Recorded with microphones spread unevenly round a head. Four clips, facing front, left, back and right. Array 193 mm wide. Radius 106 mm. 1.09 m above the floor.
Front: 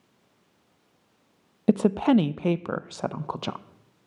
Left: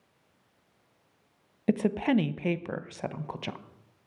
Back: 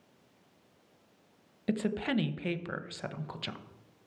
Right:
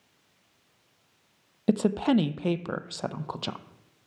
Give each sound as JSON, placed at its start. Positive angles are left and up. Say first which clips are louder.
{"t": 1.7, "sound": "a woman speaking", "louder": "right 2 dB, front 11 dB", "azimuth_deg": -15, "distance_m": 0.6}